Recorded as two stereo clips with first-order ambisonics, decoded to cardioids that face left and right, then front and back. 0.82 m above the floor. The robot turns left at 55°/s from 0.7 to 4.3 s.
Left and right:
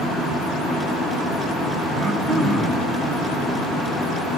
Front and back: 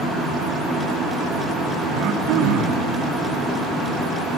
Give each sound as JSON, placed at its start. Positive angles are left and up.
{"t": 1.9, "sound": "throat clearing", "azimuth_deg": -140, "distance_m": 1.2}